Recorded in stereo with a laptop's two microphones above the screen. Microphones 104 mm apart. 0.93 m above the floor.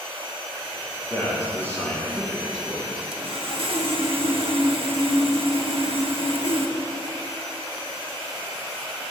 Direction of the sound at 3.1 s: 60° right (ahead or behind).